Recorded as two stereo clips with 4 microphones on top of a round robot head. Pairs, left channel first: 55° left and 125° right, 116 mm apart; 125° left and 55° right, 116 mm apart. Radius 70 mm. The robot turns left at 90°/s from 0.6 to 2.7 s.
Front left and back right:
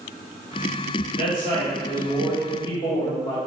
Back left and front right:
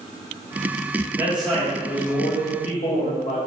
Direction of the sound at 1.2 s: 120° right.